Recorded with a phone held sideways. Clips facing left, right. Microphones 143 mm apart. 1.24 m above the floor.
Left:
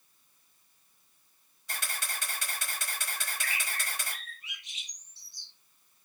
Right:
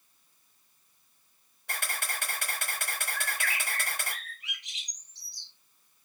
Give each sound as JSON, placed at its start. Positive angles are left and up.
{"t": 1.7, "sound": "a camera shutter", "side_deg": -60, "distance_m": 3.5}
{"t": 3.1, "sound": "a bird", "side_deg": -90, "distance_m": 4.0}